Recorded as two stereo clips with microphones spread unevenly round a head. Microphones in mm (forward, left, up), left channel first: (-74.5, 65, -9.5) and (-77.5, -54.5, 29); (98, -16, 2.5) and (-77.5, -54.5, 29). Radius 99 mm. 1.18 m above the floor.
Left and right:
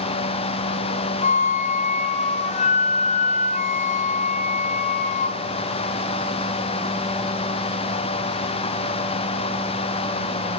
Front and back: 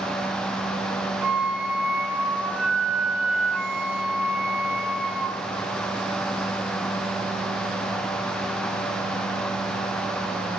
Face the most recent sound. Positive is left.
turn(degrees=115)